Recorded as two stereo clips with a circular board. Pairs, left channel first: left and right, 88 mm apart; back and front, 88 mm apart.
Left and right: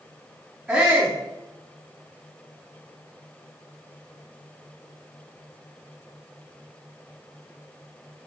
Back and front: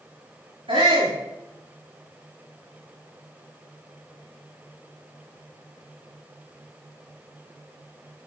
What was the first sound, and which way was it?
A shout, 5° left.